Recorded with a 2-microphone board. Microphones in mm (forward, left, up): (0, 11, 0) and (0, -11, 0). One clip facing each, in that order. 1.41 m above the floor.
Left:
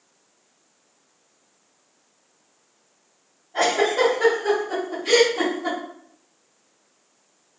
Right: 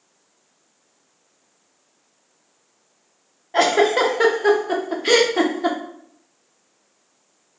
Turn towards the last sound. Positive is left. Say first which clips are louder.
# right 4 dB
turn(degrees=-80)